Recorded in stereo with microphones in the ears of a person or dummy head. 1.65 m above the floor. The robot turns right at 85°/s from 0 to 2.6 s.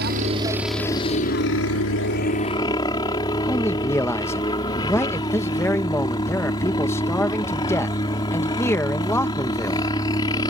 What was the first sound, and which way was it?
A helicopter, 60° right.